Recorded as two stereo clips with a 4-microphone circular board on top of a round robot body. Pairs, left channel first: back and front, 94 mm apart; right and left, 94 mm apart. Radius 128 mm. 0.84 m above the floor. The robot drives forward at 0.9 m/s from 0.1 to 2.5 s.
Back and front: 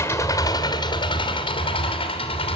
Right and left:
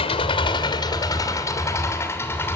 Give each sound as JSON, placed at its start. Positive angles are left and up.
{"t": 0.0, "sound": "an engine running", "azimuth_deg": -115, "distance_m": 1.3}